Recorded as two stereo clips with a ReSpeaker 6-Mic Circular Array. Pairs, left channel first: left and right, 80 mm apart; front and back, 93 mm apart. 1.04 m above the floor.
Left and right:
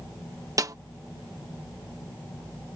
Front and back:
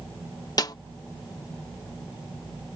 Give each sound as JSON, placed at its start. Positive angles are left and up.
{"t": 0.6, "sound": "a snare drum", "azimuth_deg": -45}